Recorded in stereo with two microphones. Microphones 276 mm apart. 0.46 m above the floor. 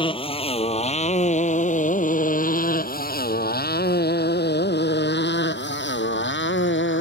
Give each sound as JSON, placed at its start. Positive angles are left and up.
{"t": 0.0, "sound": "a motorcycle", "side_deg": 20}